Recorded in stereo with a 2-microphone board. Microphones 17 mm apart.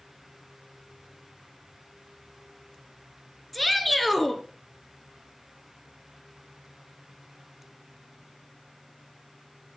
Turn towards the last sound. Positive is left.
turn(degrees=10)  # may be behind; listen again after turning